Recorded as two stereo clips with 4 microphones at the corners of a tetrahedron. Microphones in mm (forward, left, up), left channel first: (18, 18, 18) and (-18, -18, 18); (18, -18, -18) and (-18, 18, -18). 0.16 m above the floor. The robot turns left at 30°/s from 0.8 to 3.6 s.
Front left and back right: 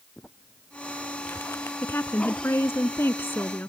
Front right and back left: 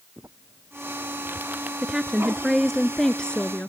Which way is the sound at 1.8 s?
70° left.